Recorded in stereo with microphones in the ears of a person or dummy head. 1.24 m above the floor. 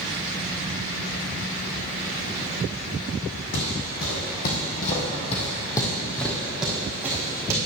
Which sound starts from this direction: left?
Footsteps, at 3.5 s.